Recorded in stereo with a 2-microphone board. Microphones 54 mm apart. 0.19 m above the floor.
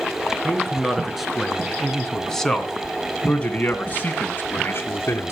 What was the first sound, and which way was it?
A man speaking, 10° right (ahead or behind).